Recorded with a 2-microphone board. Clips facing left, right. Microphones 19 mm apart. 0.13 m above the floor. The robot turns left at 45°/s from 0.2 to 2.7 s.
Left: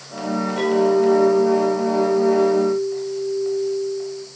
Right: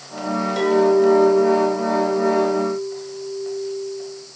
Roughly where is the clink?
Behind right.